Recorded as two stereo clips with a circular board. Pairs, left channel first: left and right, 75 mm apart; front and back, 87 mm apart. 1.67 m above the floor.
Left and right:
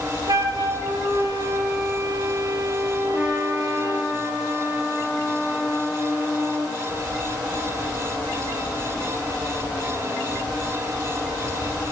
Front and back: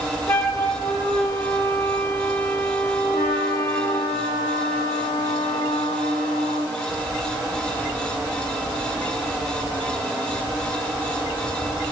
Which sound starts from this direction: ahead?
A trumpet, at 3.1 s.